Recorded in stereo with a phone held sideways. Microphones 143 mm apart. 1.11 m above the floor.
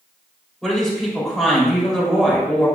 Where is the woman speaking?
Centre (ahead or behind), 2.5 m.